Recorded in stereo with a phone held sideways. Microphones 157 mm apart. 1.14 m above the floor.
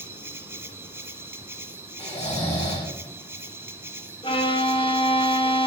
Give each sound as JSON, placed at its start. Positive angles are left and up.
{"t": 0.0, "sound": "an insect", "side_deg": -15, "distance_m": 1.0}
{"t": 2.0, "sound": "snoring", "side_deg": 35, "distance_m": 5.5}
{"t": 4.2, "sound": "a violin", "side_deg": 30, "distance_m": 1.1}